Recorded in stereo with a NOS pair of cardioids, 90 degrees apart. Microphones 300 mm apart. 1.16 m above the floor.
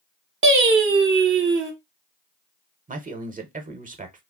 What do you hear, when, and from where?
0.4 s singing: 35° right, 0.8 m
2.9 s a man speaking: 25° right, 0.8 m